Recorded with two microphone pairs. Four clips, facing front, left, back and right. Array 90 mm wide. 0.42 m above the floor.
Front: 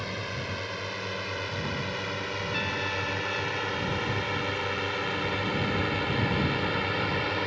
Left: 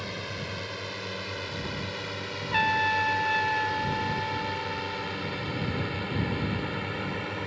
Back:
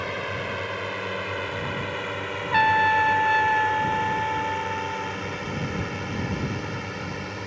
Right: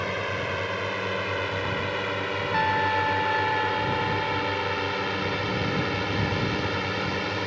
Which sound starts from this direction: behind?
A trumpet, at 2.5 s.